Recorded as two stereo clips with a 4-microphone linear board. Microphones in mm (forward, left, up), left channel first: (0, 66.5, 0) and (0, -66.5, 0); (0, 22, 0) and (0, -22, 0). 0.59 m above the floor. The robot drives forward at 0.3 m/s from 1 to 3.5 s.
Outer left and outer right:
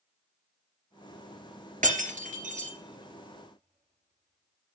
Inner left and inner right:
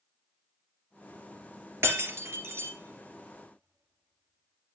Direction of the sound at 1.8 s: 75° right (ahead or behind).